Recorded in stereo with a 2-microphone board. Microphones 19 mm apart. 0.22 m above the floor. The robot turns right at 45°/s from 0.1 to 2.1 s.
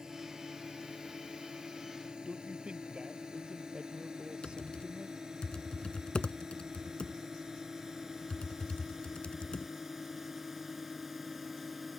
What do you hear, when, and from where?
0.0 s a drone: 30° right (ahead or behind); by 12.0 s 10° right (ahead or behind)
2.2 s a man speaking: 60° right (ahead or behind)
4.4 s typing on a keyboard: 50° left (ahead or behind)